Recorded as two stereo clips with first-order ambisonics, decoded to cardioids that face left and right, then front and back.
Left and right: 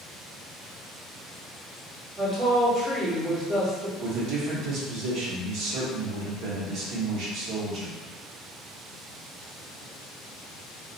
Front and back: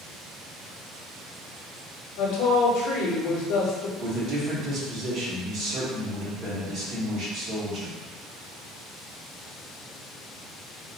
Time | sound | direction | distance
2.2 | a woman speaking | 25° right | 0.8 m
4.0 | a man speaking | 125° right | 1.1 m